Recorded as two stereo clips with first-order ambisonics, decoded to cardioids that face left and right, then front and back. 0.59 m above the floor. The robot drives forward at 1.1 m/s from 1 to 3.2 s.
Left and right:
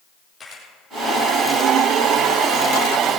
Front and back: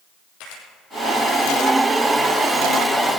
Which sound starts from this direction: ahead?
A camera shutter, at 0.4 s.